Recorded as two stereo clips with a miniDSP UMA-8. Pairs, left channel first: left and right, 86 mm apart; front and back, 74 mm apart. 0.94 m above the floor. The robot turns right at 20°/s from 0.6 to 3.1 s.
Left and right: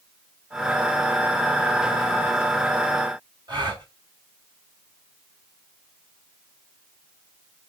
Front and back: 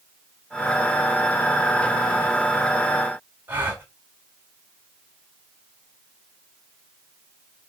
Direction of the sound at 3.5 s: 115° right.